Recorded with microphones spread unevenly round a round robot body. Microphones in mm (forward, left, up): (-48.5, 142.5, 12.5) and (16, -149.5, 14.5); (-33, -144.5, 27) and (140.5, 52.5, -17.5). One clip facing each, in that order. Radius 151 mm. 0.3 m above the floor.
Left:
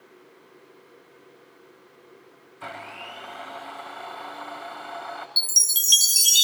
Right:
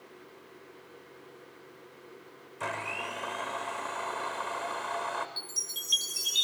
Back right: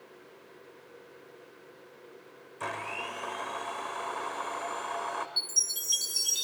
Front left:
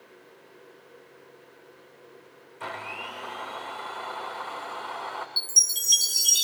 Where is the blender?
80° right, 7.5 m.